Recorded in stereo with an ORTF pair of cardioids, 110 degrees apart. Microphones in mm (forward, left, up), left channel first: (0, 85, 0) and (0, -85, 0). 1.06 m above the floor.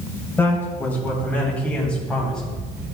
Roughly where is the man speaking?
Ahead.